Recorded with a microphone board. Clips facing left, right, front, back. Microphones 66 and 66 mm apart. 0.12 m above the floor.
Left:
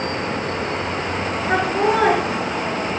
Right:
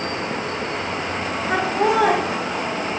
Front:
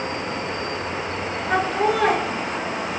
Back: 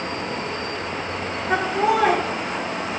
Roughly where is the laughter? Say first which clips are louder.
Even, back 1 dB; left.